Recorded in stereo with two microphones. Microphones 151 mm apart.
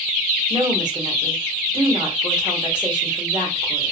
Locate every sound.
0.5 s a woman speaking: 30° right (ahead or behind), 1.0 m